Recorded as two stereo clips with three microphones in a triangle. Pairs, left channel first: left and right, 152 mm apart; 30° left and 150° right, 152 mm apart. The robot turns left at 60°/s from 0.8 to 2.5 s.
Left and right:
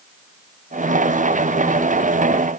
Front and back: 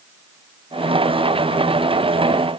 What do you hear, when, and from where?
Only background noise.